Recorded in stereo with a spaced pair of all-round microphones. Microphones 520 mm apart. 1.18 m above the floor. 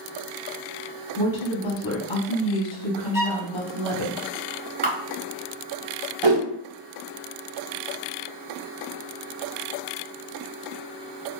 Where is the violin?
40° left (ahead or behind), 0.7 m.